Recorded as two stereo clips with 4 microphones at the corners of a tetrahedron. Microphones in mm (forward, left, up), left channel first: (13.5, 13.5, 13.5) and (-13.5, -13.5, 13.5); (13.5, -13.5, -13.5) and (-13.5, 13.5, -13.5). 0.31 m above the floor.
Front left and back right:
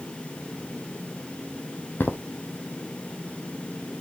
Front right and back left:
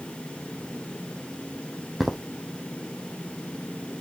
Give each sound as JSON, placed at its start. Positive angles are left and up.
{"t": 2.0, "sound": "footsteps", "azimuth_deg": 45, "distance_m": 0.7}